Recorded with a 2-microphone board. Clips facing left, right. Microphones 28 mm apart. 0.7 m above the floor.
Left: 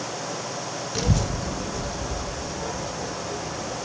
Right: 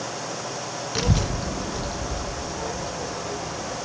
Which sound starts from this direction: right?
A child speaking, at 0.9 s.